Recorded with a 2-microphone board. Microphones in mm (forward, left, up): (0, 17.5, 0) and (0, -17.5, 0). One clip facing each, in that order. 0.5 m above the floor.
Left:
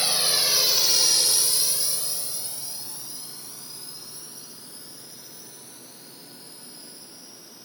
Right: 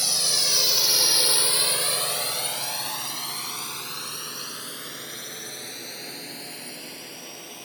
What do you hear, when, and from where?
0.0 s a drone: 25° left (ahead or behind); by 7.7 s 70° right (ahead or behind)